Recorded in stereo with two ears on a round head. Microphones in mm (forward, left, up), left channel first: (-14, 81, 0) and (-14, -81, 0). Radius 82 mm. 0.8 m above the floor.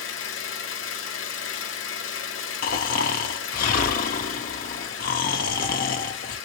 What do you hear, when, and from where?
0.0 s an engine running: 80° left, 1.3 m
2.6 s snoring: 50° left (ahead or behind), 0.9 m